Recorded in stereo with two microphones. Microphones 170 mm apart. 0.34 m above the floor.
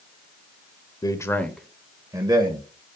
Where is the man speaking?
25° left (ahead or behind), 1.1 m; by 2.7 s 35° right (ahead or behind), 1.4 m.